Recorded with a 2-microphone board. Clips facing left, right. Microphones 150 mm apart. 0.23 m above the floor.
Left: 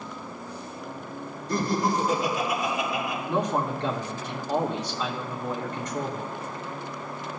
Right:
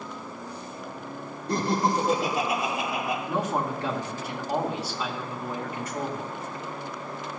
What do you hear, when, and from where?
1.5 s laughter: 75° right (ahead or behind), 4 m
3.3 s a man speaking: 5° right (ahead or behind), 2 m